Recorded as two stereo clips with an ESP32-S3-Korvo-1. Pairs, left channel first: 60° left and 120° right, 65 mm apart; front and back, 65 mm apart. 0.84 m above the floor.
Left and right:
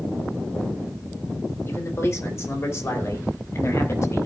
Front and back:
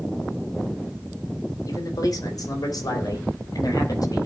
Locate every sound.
1.7 s a man speaking: 15° left, 3 m; by 4.3 s 20° left, 5.5 m